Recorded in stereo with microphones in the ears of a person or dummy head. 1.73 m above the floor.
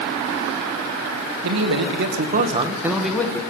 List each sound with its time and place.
1.4 s a man speaking: 85° right, 1.9 m; by 3.4 s 10° left (ahead or behind), 1.7 m